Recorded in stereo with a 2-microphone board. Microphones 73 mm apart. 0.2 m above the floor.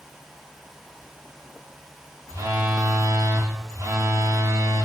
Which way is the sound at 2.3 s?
60° right (ahead or behind).